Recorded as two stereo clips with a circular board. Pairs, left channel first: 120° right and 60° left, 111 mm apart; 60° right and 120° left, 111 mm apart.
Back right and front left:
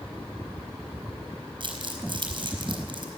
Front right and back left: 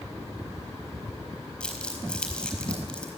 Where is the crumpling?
20° left, 4 m.